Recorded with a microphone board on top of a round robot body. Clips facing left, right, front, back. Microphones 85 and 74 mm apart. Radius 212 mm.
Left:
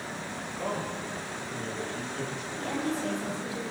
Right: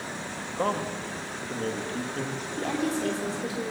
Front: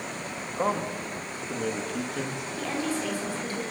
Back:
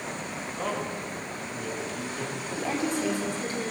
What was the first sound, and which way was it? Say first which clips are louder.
A man speaking: right 6 dB, front 5 dB; 60° right.